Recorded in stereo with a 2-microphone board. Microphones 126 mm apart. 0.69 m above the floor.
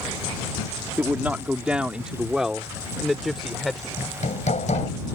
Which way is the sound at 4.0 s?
75° left (ahead or behind).